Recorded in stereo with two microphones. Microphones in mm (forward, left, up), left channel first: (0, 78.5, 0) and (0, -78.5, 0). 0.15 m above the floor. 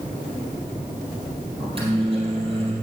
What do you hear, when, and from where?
1.6 s a microwave: 35° right (ahead or behind), 3.5 m